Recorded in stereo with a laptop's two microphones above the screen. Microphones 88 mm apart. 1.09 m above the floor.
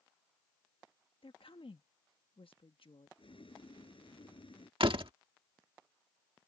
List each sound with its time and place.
1.2 s a woman speaking: 85° left
3.2 s boiling: 85° left
4.8 s a door slam: 80° right